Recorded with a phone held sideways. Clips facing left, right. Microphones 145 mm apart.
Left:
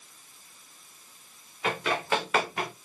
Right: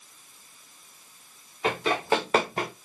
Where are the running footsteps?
25° right (ahead or behind), 4 m; by 2.7 s 35° right (ahead or behind), 4 m.